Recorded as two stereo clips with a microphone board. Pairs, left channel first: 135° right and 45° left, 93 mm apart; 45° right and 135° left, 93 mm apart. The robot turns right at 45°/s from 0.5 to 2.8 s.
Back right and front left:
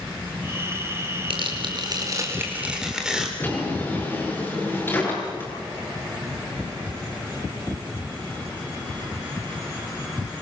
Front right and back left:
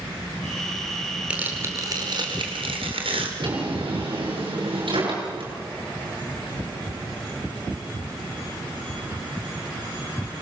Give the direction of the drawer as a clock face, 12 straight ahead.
7 o'clock.